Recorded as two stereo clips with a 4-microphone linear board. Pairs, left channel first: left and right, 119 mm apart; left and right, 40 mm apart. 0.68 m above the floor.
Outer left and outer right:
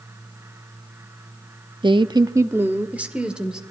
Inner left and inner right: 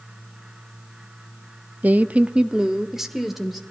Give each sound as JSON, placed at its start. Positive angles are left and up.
{"t": 1.8, "sound": "a woman speaking", "side_deg": -40, "distance_m": 0.7}